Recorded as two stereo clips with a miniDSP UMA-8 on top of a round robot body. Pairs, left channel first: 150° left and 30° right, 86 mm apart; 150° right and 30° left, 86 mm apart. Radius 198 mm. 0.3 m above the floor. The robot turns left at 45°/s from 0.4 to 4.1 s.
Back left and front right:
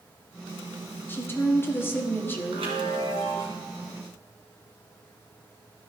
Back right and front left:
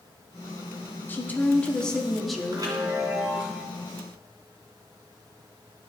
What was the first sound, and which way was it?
A woman speaking, 175° left.